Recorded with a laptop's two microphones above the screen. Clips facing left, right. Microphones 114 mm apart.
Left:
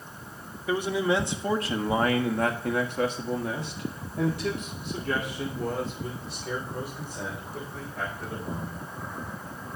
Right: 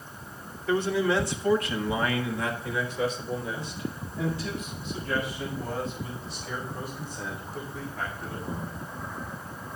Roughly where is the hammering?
I don't hear hammering.